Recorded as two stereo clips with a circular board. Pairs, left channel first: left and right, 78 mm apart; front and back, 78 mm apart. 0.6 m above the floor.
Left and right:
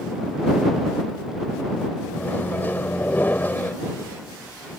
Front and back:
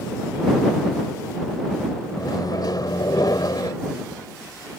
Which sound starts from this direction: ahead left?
A microwave, at 2.2 s.